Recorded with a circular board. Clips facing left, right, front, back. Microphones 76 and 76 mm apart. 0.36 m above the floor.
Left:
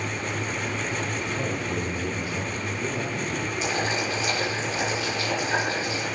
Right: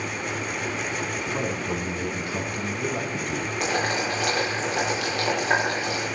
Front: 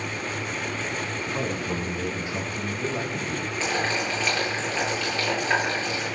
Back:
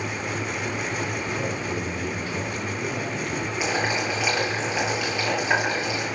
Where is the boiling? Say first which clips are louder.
Right 2 dB, back 1 dB; 105° right, 9 m.